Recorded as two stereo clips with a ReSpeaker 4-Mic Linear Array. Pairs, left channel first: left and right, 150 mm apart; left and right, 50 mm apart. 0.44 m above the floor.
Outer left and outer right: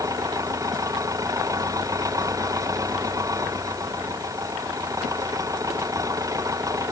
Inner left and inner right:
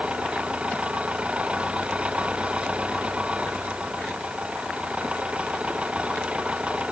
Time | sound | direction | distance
0.0 | an engine running | 25° right (ahead or behind) | ?